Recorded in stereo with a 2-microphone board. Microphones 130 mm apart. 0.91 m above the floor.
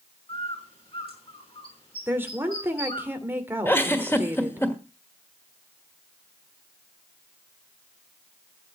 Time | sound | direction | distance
0.3 | a bird | 50° left (ahead or behind) | 6 m
2.1 | a woman speaking | 15° right (ahead or behind) | 2.5 m
3.6 | a giggle | 20° left (ahead or behind) | 1.5 m